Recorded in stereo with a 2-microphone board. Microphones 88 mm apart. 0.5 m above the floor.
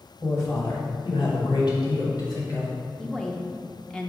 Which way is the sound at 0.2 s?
35° left (ahead or behind).